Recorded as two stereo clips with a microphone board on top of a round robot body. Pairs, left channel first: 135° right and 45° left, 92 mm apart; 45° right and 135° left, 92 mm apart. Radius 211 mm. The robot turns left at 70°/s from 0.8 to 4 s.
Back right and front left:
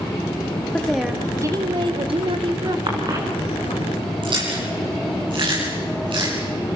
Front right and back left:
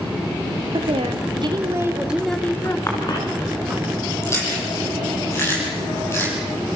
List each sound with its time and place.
0.7 s a woman speaking: 145° left, 2.5 m; by 2.8 s 10° left, 2.5 m
2.9 s a cough: 15° left, 7 m; by 3.2 s 10° right, 7 m
4.2 s chewing: 15° left, 8 m